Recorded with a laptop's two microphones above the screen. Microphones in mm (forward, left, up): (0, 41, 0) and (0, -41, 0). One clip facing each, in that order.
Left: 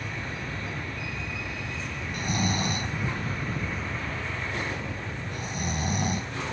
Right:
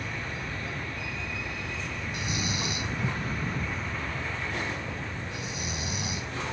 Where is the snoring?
45° left (ahead or behind).